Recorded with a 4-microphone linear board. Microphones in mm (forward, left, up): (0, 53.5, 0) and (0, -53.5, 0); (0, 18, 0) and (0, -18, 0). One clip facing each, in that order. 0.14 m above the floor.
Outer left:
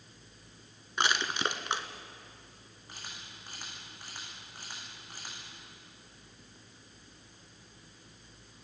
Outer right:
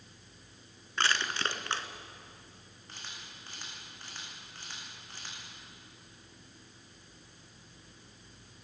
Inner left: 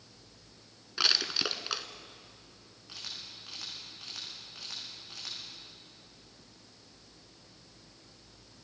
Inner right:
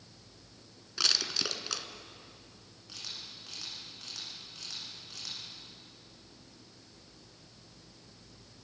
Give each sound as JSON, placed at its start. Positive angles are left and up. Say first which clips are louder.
{"t": 1.0, "sound": "crushing", "louder": "outer left 1 dB, inner left 2 dB", "side_deg": 15, "distance_m": 1.2}
{"t": 2.9, "sound": "a camera shutter", "louder": "outer left 1 dB, inner left 1 dB", "side_deg": 10, "distance_m": 8.5}